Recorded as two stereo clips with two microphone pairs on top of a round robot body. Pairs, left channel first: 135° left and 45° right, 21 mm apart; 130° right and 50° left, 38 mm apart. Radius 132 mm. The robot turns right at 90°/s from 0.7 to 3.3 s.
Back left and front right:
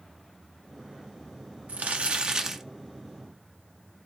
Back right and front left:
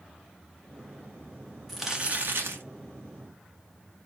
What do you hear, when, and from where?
1.7 s crumpling: 50° right, 1.7 m; by 2.6 s 35° left, 1.7 m